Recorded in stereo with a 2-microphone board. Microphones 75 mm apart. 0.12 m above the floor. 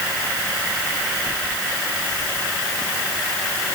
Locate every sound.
Only background noise.